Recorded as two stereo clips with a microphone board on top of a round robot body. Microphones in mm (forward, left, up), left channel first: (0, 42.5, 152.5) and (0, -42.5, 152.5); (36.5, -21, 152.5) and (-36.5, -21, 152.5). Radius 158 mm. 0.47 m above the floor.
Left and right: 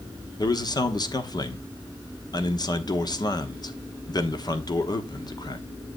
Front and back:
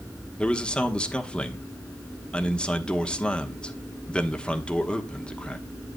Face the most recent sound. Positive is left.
turn(degrees=75)